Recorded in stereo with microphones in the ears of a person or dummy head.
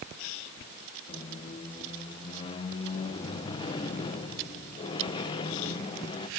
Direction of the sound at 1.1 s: 25° left (ahead or behind).